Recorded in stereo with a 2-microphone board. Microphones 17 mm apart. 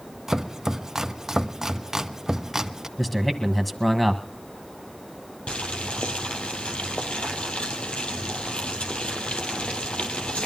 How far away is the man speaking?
About 1.7 m.